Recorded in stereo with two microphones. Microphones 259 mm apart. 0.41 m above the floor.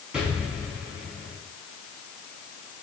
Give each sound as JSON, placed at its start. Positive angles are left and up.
{"t": 0.1, "sound": "an explosion", "side_deg": -5, "distance_m": 3.5}